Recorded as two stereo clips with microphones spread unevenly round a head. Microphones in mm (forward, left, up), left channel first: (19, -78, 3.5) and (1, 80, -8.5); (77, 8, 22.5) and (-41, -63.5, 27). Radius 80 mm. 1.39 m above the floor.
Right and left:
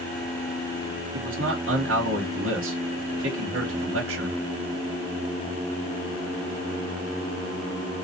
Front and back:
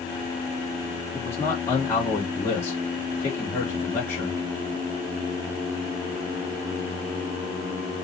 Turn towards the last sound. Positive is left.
turn(degrees=110)